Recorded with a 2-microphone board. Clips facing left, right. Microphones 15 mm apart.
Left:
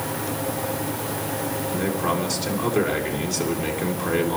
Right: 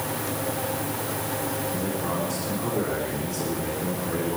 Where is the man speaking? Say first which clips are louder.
Left 4 dB; 55° left (ahead or behind), 4 m.